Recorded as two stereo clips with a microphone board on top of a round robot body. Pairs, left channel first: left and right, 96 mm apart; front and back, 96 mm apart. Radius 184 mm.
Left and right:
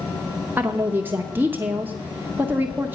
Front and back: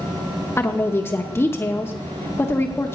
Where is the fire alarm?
No fire alarm in this recording.